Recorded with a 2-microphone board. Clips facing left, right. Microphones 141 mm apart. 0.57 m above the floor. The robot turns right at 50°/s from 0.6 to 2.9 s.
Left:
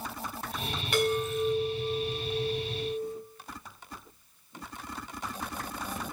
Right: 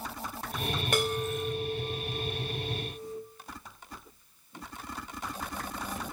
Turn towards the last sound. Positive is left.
turn(degrees=55)